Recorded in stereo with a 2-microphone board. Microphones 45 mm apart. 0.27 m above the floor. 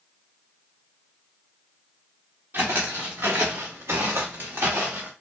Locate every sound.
2.5 s footsteps: 50° right (ahead or behind), 1.1 m; by 5.1 s 40° right (ahead or behind), 1.1 m